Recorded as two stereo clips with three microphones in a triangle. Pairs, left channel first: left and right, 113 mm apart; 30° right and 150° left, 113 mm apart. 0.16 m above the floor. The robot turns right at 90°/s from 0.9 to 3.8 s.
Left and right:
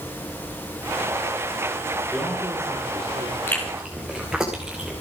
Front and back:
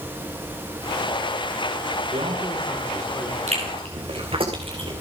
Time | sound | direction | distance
2.1 | a man speaking | 165° left | 9.5 m
3.5 | chewing | 155° left | 4.5 m